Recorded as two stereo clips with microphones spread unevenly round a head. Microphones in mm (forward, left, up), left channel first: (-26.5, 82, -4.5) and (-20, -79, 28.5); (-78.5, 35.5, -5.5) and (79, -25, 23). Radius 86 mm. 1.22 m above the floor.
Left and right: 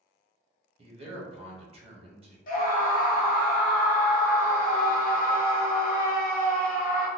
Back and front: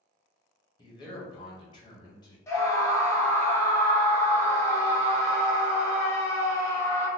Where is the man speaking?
145° right, 1.1 m.